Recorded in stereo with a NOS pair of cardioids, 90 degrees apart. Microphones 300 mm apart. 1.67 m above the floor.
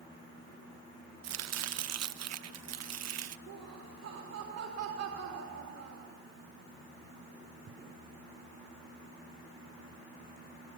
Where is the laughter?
55° right, 4 m.